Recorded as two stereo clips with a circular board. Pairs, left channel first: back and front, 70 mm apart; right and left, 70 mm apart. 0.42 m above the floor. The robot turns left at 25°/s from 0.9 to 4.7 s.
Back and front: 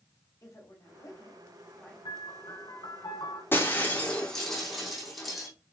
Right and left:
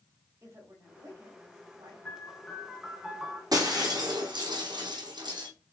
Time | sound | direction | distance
0.4 | a woman speaking | 135° left | 3 m
2.0 | a piano | 160° right | 2 m
3.5 | breaking glass | 120° left | 3.5 m